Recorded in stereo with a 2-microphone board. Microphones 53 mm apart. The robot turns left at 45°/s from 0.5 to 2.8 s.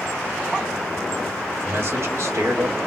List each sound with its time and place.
1.6 s a man speaking: 60° right, 2 m; by 2.8 s 110° right, 2 m